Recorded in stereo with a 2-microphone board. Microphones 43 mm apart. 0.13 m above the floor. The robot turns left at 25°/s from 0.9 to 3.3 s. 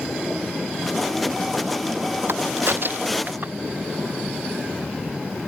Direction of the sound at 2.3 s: 75° right (ahead or behind).